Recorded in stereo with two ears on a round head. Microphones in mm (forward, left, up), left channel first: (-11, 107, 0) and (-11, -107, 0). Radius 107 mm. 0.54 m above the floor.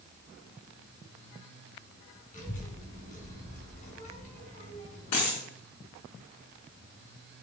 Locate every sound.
2.3 s a child speaking: 35° left (ahead or behind), 2.5 m
5.1 s a dropped coin: 80° left, 5 m